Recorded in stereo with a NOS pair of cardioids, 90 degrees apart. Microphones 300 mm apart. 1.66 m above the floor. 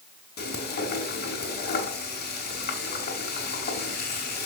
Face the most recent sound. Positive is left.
turn(degrees=35)